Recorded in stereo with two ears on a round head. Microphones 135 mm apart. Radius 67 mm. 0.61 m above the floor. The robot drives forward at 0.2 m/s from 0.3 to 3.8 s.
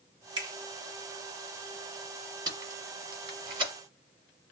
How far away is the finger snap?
About 1.0 m.